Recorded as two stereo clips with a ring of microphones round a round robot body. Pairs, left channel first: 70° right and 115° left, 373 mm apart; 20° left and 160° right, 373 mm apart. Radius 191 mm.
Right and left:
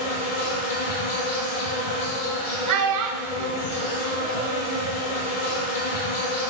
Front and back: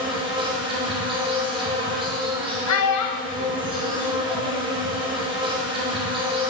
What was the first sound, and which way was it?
An insect, 80° right.